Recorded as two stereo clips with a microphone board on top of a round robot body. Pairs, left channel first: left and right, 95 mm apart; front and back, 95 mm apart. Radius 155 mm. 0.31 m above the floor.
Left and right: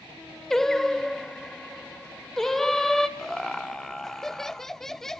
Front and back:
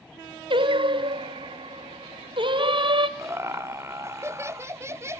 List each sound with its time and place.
0.5 s singing: 175° left, 1.3 m
3.2 s laughter: 170° left, 1.1 m